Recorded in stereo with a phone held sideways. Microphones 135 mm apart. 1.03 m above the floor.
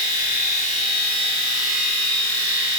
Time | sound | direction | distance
0.0 | a machine running | 30° left (ahead or behind) | 1.6 m